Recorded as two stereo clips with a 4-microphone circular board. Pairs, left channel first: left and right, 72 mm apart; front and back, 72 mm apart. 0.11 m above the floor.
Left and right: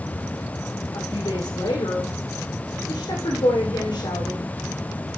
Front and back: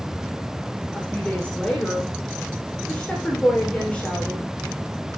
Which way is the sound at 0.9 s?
75° left.